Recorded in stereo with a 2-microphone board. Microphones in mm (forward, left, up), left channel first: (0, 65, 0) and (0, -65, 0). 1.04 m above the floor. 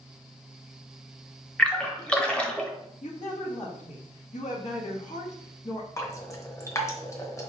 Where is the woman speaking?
65° left (ahead or behind), 1.5 m.